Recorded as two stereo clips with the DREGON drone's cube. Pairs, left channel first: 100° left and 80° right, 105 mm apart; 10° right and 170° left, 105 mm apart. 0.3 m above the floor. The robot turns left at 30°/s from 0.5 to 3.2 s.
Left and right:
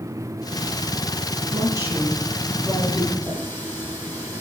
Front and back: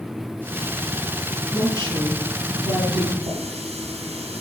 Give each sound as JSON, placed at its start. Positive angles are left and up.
{"t": 1.5, "sound": "a woman speaking", "azimuth_deg": -130, "distance_m": 9.0}
{"t": 3.2, "sound": "a running tap", "azimuth_deg": 175, "distance_m": 6.5}